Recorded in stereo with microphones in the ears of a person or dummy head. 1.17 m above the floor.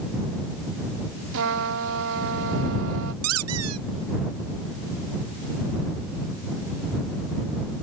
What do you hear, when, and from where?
1.3 s a trumpet: 75° right (ahead or behind)
3.2 s a squeak: 85° right